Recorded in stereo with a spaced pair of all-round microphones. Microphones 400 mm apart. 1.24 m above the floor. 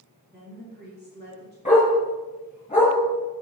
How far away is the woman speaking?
About 3 m.